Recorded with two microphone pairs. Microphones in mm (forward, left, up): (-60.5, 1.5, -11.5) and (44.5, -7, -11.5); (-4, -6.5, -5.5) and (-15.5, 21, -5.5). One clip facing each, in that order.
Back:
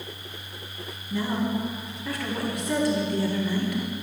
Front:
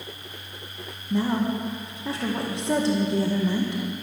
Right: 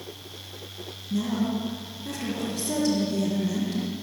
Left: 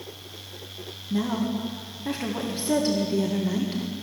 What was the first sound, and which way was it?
A woman speaking, 60° left.